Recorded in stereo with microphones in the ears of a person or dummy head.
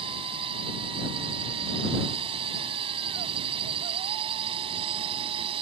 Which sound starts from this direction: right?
A drone, at 0.0 s.